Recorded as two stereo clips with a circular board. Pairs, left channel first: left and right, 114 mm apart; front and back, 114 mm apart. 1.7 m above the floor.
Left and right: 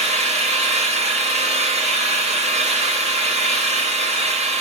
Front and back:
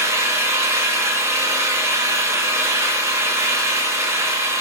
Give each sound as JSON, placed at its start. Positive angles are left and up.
{"t": 0.0, "sound": "an engine running", "azimuth_deg": -115, "distance_m": 2.0}